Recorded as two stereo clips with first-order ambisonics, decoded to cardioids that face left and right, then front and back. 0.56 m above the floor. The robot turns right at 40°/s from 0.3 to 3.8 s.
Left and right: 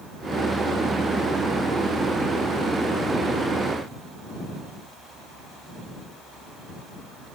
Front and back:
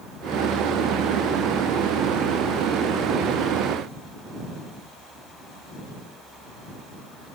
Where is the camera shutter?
I don't hear a camera shutter.